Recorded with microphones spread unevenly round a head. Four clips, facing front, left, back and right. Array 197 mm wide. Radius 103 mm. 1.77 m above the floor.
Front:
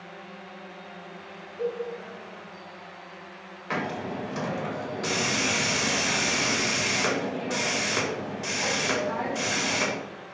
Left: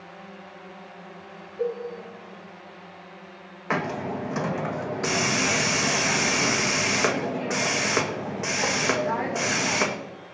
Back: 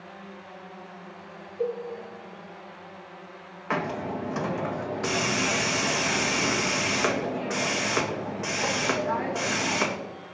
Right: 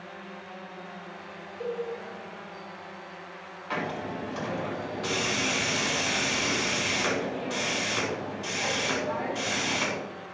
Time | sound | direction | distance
1.6 | a cowbell | 85° left | 6.5 m
3.7 | a hiss | 90° left | 1.9 m